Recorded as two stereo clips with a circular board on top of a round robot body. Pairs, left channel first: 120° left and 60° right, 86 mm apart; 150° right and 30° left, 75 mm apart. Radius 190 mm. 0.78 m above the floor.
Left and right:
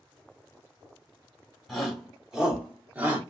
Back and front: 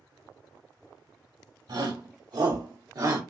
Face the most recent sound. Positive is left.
turn(degrees=5)